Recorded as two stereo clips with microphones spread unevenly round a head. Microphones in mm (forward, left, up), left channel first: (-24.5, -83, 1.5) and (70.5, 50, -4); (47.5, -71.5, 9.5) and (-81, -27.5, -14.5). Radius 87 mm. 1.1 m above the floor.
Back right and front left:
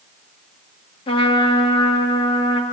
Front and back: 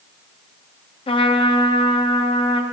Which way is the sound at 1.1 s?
70° right.